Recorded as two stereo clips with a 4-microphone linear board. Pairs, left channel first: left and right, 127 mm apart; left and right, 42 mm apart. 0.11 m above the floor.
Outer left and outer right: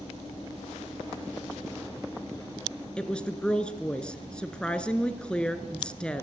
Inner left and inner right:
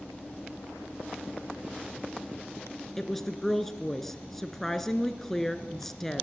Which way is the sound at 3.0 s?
10° left (ahead or behind).